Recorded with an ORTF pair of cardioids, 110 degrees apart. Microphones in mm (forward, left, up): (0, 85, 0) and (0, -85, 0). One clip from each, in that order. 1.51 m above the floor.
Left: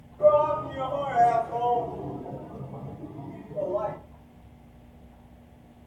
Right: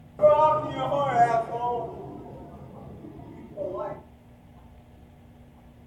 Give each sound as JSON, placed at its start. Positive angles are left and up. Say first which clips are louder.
{"t": 0.2, "sound": "a shout", "louder": "right 2 dB", "azimuth_deg": -60, "distance_m": 1.0}